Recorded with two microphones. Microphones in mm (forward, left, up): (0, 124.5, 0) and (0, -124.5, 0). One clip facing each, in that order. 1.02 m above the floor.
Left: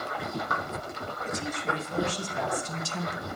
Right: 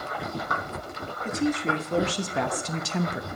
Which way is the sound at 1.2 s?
65° right (ahead or behind).